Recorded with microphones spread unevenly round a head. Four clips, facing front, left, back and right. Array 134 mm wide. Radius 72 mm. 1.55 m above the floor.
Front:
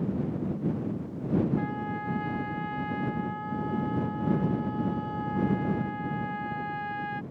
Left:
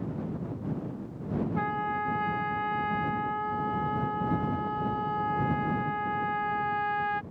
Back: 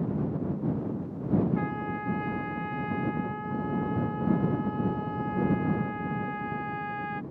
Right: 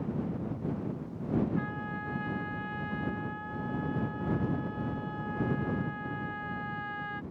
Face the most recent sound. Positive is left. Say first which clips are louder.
# left 6 dB, even
turn(degrees=120)